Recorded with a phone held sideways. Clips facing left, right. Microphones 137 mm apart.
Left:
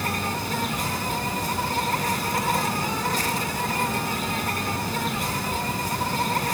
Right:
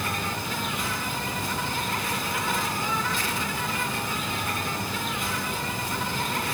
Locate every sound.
0.0 s an insect: 40° left (ahead or behind), 3.5 m